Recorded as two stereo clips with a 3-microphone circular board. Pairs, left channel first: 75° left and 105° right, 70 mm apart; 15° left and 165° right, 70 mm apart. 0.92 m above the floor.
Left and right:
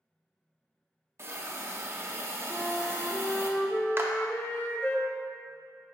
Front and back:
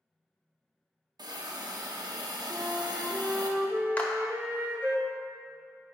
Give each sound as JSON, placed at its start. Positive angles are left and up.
{"t": 1.2, "sound": "a hiss", "azimuth_deg": -155, "distance_m": 0.7}
{"t": 2.5, "sound": "a flute", "azimuth_deg": 130, "distance_m": 0.7}
{"t": 4.0, "sound": "a clap", "azimuth_deg": -55, "distance_m": 0.7}